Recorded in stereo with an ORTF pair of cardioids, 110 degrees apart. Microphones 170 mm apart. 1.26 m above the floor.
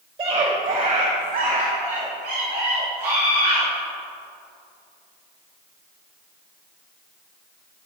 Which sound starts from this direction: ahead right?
A scream, at 0.2 s.